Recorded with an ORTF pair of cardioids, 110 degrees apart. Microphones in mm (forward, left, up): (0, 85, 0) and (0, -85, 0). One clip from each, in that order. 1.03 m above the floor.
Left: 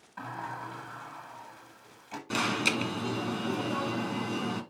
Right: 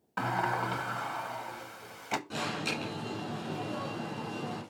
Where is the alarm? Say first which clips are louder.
Left 6 dB; 70° left, 2 m.